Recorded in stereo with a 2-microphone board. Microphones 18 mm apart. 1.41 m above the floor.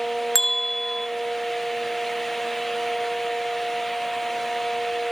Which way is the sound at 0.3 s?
10° left (ahead or behind).